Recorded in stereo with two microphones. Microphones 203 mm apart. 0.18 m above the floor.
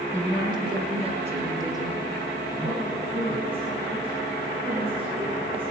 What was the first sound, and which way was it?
A woman speaking, 15° right (ahead or behind).